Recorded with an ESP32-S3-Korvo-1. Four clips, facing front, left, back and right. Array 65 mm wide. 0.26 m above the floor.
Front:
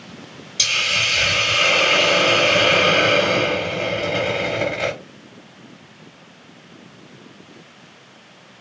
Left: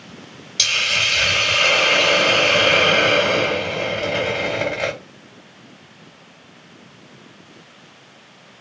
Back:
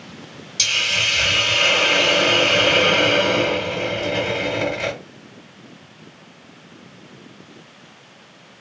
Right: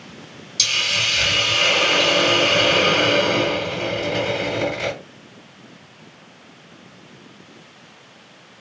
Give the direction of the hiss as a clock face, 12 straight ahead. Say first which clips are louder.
Left 2 dB, front 1 dB; 9 o'clock.